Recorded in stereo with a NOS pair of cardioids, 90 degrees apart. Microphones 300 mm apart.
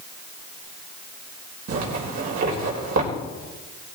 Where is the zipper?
65° right, 4 m.